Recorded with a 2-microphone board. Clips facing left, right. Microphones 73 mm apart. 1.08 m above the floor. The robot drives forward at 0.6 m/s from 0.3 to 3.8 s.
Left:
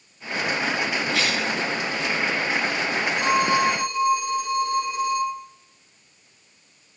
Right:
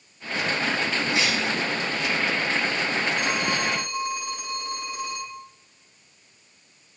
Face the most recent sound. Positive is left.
turn(degrees=-55)  # may be behind; listen again after turning